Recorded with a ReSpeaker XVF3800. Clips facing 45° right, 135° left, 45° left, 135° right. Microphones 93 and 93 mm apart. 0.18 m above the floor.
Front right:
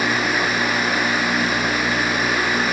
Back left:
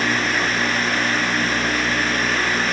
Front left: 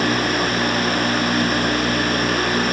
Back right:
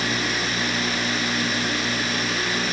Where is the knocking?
No knocking in this recording.